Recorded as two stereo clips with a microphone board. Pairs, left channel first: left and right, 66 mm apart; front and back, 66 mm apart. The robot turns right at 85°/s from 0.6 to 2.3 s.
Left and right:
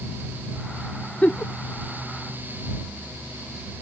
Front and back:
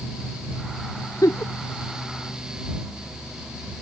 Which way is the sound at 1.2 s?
20° left.